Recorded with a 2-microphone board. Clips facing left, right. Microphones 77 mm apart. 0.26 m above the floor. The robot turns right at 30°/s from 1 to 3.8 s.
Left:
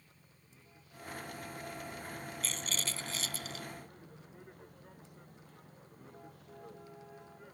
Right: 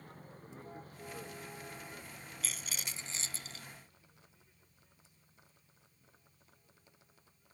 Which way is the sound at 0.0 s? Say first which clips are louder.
Right 12 dB; 50° right (ahead or behind).